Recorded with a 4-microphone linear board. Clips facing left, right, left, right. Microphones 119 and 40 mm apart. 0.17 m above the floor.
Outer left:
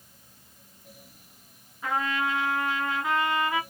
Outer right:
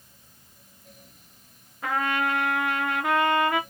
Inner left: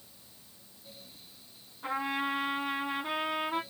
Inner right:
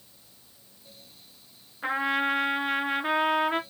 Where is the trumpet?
60° right (ahead or behind), 0.8 m.